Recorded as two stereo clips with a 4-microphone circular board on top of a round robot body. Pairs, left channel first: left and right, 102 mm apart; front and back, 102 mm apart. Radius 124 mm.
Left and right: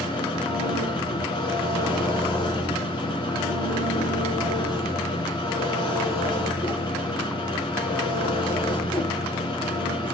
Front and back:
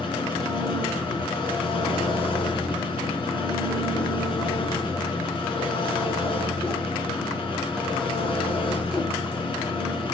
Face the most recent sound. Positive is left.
turn(degrees=45)